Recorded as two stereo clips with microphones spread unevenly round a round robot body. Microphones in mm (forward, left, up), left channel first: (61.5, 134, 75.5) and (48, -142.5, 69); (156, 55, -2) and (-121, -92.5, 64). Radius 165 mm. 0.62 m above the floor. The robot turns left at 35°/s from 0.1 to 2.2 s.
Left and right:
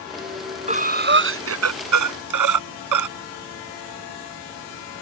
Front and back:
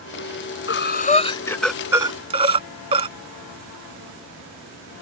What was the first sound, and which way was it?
Breathing, 25° right.